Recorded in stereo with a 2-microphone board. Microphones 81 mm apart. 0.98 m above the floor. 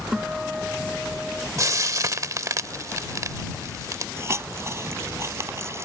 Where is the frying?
45° right (ahead or behind).